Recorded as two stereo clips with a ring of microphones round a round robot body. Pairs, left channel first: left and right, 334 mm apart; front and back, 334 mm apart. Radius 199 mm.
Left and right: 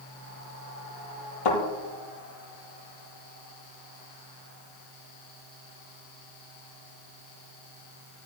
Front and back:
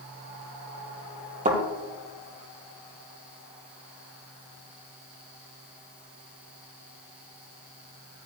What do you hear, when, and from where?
1.4 s a thud: 110° left, 4 m